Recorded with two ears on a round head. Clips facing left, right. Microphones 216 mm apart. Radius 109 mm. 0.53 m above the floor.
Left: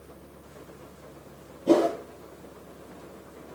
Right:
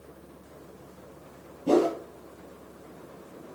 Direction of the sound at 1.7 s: 15° right (ahead or behind).